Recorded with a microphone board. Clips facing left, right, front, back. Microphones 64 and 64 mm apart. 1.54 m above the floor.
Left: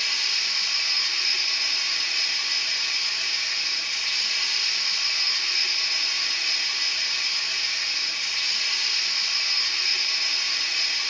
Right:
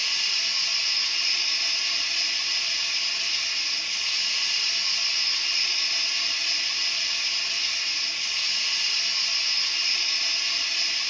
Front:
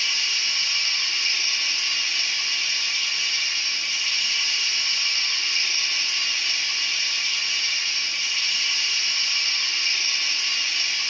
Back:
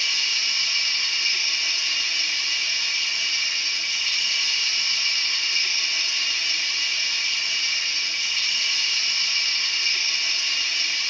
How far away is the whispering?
No whispering in this recording.